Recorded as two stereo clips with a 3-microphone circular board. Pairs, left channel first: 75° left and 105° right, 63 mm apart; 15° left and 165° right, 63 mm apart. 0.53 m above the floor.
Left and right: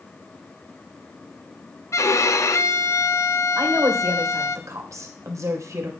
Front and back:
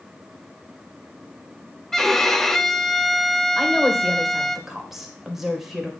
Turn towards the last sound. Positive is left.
turn(degrees=-80)